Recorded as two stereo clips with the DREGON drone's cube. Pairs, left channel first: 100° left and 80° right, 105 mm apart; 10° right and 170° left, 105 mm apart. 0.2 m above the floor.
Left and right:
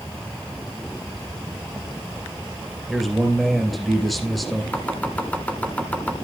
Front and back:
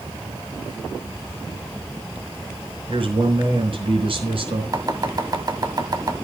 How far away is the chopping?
About 1.6 m.